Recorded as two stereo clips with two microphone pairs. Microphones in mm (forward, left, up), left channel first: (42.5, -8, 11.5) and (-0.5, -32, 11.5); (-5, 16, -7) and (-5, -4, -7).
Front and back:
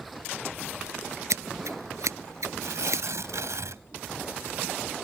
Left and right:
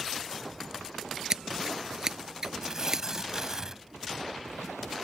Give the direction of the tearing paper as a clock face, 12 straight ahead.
5 o'clock.